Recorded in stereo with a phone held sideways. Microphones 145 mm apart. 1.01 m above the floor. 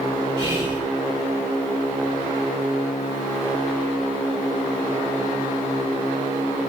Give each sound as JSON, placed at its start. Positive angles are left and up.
{"t": 0.4, "sound": "whispering", "side_deg": -30, "distance_m": 3.5}